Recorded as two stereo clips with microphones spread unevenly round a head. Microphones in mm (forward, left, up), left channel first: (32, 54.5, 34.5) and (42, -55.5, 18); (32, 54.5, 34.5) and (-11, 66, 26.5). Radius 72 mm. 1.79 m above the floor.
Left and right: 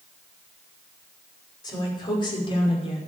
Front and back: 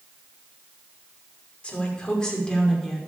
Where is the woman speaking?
45° left, 6 m; by 3.0 s 65° left, 5.5 m.